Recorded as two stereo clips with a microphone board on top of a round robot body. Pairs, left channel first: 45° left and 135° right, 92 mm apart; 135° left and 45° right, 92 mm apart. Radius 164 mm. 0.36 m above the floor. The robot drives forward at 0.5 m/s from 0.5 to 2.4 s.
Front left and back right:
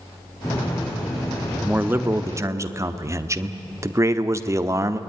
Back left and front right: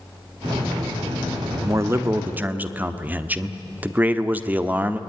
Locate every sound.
1.6 s a man speaking: 75° right, 1.3 m; by 5.0 s 105° right, 1.3 m